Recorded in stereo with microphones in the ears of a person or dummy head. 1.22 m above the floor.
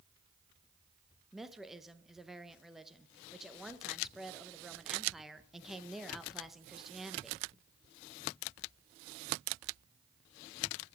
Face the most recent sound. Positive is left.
turn(degrees=0)  # may be behind; listen again after turning